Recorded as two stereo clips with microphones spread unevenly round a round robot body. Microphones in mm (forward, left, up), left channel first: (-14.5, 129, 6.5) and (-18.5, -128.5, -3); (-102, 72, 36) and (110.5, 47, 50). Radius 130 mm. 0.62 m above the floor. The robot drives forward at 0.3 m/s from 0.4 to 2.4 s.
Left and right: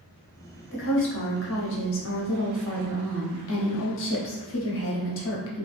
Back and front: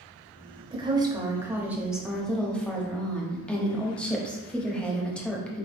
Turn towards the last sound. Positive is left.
turn(degrees=95)